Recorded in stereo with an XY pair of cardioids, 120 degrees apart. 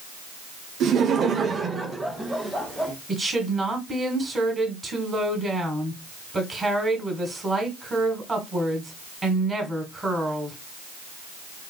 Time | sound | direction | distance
0.8 | laughter | 65° right | 0.7 m
3.1 | a woman speaking | 20° right | 1.6 m